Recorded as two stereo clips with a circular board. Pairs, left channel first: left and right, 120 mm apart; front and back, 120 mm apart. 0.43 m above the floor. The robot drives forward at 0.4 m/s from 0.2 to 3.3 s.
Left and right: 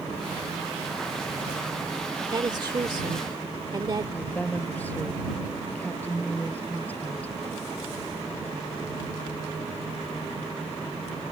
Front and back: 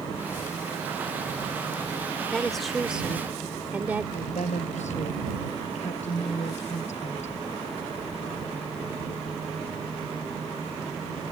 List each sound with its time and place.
2.3 s a woman speaking: 80° right; by 4.0 s 115° right
4.1 s a woman speaking: 15° left